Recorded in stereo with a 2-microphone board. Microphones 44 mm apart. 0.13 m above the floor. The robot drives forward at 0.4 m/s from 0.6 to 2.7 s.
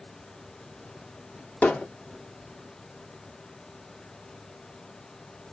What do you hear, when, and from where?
1.6 s hammering: 35° left (ahead or behind), 1.3 m